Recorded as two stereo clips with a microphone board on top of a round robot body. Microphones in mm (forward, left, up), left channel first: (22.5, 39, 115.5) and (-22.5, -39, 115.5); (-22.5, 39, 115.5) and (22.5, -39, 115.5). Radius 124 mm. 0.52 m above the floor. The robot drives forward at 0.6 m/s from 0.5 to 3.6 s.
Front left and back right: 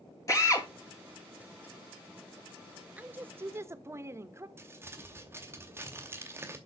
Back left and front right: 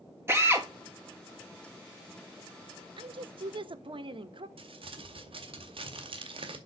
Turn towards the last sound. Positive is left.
turn(degrees=-60)